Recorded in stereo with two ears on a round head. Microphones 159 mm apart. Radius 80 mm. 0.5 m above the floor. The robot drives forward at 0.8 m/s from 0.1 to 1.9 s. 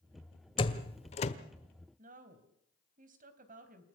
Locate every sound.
0.6 s a door slam: 30° left (ahead or behind), 1.7 m; by 1.3 s 40° left (ahead or behind), 1.3 m
2.0 s a woman speaking: 50° right (ahead or behind), 3.5 m